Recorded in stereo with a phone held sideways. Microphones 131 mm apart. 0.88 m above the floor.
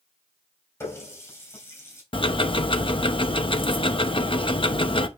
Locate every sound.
0.8 s a running tap: 20° left (ahead or behind), 3 m
2.1 s ticking: 40° left (ahead or behind), 0.7 m